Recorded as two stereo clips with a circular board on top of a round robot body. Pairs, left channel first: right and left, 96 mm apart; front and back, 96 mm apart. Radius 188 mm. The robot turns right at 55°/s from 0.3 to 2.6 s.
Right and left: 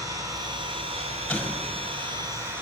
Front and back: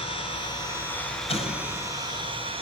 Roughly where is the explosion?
Ahead.